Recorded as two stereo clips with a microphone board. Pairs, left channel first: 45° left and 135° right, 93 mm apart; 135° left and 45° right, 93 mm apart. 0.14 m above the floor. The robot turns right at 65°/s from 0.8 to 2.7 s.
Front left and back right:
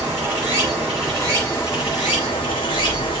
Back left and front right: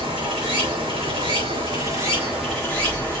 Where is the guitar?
No guitar in this recording.